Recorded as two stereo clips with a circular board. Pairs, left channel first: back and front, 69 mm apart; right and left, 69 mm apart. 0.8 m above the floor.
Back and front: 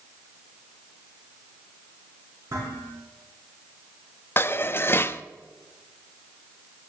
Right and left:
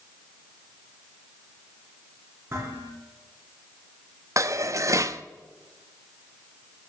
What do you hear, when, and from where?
2.5 s dishes clattering: 35° left, 7 m
4.4 s dishes clattering: 125° left, 0.5 m